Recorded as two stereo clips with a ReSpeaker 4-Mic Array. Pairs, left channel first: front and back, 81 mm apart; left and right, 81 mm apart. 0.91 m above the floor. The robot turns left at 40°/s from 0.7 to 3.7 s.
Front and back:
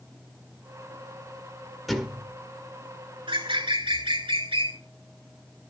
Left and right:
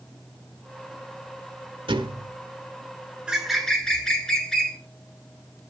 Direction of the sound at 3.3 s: 170° right.